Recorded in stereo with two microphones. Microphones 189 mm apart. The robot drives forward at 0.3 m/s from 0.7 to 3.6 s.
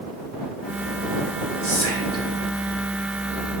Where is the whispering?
60° right (ahead or behind), 2.5 m.